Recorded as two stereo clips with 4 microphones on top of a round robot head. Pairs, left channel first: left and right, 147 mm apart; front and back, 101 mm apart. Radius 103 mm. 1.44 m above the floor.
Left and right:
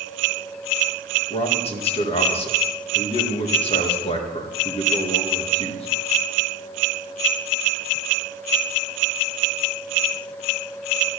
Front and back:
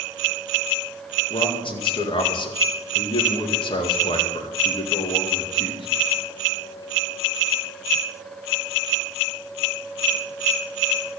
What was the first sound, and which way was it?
A man speaking, 40° left.